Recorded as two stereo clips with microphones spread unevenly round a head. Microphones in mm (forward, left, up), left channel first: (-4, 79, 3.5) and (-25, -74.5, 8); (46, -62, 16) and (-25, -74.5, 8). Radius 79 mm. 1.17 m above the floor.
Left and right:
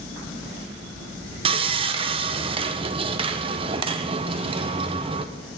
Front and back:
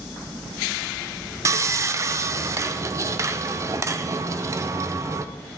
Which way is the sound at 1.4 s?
145° right.